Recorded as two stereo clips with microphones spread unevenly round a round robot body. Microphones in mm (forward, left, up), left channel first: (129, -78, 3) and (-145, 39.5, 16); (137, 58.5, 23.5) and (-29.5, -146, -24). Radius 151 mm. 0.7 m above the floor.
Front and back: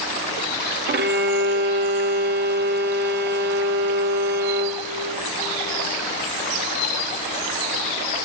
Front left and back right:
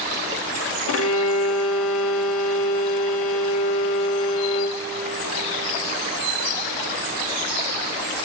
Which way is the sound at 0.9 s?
100° left.